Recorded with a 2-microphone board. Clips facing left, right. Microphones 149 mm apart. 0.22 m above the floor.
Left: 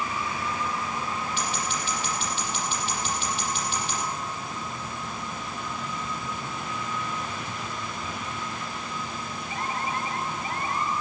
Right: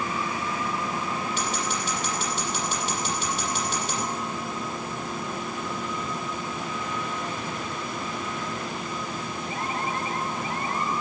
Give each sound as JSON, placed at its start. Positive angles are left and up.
{"t": 1.4, "sound": "scissors", "side_deg": -45, "distance_m": 6.5}